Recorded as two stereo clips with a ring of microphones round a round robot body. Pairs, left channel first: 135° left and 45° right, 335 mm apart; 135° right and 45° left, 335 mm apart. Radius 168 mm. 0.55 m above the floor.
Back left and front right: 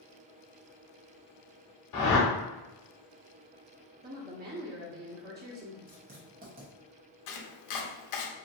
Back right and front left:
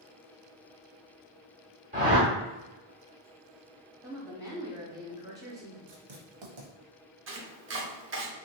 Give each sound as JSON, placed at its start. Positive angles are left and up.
{"t": 1.9, "sound": "a whoosh", "azimuth_deg": 110, "distance_m": 1.0}
{"t": 4.0, "sound": "a woman speaking", "azimuth_deg": -25, "distance_m": 0.8}
{"t": 5.9, "sound": "writing", "azimuth_deg": 20, "distance_m": 0.8}
{"t": 7.3, "sound": "chopping", "azimuth_deg": 100, "distance_m": 0.6}